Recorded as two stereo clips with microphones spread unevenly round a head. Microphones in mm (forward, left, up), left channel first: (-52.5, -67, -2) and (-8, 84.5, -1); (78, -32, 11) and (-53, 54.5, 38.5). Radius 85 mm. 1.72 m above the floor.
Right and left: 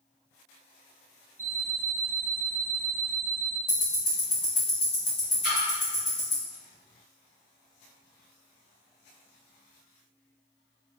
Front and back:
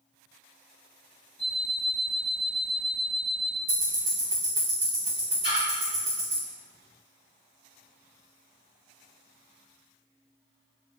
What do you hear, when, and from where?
1.4 s an alarm clock: 60° left, 1.1 m
3.7 s ticking: 160° right, 1.5 m
5.4 s a splash: 100° right, 1.9 m